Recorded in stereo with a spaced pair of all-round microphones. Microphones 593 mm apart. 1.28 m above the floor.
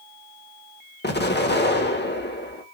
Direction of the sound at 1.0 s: 20° left (ahead or behind).